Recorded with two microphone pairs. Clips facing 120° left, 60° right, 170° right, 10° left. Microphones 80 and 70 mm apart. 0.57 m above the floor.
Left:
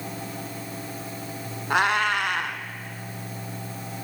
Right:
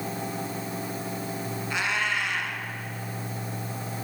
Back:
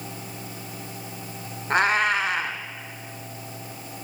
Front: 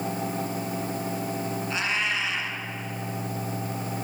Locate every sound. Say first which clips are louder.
1.7 s a cat meowing: left 7 dB, back 10 dB; 155° left, 1.4 m